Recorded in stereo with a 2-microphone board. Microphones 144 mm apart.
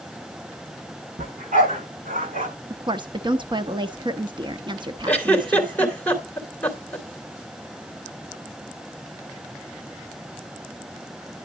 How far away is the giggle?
About 3 m.